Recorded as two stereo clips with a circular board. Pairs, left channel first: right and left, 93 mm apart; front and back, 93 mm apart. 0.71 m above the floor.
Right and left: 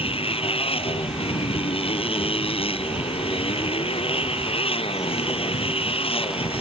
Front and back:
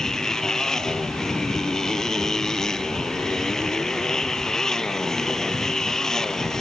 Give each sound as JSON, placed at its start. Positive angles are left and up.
{"t": 0.0, "sound": "a motorcycle", "azimuth_deg": -85}